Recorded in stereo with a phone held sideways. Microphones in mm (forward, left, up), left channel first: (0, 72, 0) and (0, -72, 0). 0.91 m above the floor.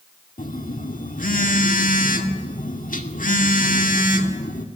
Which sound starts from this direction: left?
A phone buzzing, at 0.4 s.